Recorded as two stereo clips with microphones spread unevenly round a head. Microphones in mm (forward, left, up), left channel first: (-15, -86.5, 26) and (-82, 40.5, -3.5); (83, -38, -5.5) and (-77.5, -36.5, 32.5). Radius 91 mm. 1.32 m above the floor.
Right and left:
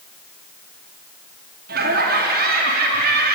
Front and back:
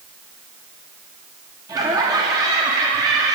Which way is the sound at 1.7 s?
105° left.